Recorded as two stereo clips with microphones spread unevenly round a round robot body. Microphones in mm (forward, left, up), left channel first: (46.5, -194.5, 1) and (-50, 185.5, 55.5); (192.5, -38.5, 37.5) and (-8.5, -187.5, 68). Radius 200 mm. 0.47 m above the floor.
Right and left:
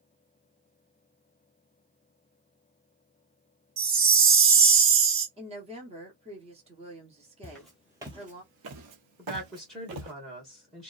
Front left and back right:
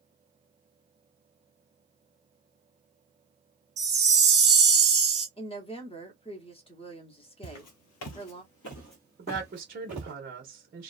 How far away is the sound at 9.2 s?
About 0.8 m.